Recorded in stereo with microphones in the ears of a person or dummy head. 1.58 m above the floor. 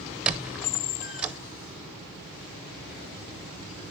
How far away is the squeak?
About 0.7 m.